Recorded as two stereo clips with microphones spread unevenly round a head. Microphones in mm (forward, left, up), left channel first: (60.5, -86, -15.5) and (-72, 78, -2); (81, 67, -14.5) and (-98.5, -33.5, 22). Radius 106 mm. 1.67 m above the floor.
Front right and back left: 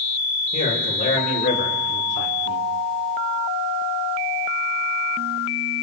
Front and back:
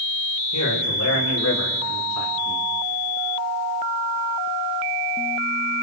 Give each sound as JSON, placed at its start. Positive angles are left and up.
{"t": 0.5, "sound": "a man speaking", "azimuth_deg": 5, "distance_m": 6.0}